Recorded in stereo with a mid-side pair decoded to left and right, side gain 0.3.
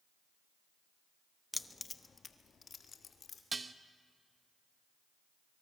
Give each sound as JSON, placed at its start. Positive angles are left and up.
{"t": 1.5, "sound": "keys jangling", "azimuth_deg": 25, "distance_m": 0.9}
{"t": 3.5, "sound": "dishes clattering", "azimuth_deg": -35, "distance_m": 1.0}